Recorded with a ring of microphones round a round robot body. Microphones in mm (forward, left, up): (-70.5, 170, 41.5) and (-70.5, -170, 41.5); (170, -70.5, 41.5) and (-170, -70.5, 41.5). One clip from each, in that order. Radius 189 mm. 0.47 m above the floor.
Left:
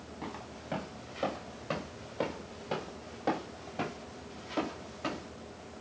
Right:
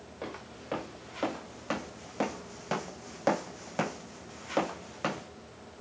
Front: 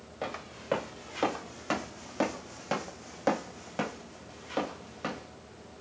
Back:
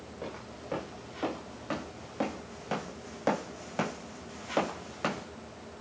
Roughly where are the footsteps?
Ahead.